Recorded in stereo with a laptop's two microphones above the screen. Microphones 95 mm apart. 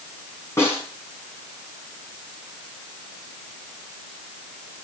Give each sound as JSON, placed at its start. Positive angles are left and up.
{"t": 0.6, "sound": "a snare drum", "side_deg": 30, "distance_m": 4.0}